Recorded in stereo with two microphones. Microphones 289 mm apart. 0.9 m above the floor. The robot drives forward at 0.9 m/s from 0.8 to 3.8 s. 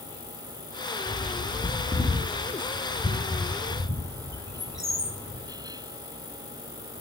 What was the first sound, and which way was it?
A bird, 30° left (ahead or behind).